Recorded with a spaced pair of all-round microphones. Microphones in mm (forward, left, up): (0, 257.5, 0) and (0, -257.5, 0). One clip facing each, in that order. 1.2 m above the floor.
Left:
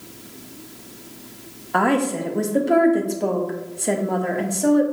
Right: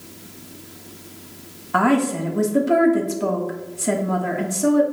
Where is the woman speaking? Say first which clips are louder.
Right 2 dB; 25° right (ahead or behind), 1.6 m.